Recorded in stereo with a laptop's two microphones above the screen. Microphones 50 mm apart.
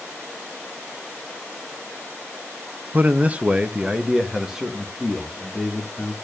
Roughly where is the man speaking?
Right.